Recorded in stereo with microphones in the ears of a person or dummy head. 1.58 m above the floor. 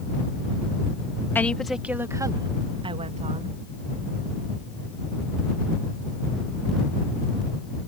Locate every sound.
1.4 s a woman speaking: 5° left (ahead or behind); by 3.6 s 40° right (ahead or behind)